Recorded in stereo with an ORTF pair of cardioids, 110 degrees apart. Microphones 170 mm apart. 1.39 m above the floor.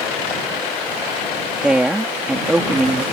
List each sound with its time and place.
1.6 s a woman speaking: 5° right